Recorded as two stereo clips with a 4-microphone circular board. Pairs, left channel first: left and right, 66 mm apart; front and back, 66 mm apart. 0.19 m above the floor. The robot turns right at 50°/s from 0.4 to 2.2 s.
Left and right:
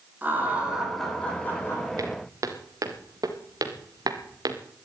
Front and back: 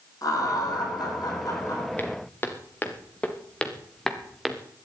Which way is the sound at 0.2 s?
30° right.